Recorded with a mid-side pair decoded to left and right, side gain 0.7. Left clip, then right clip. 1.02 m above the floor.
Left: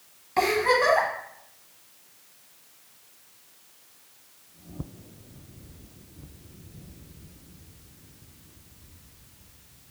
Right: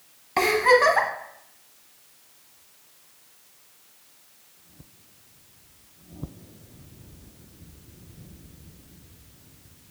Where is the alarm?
I don't hear an alarm.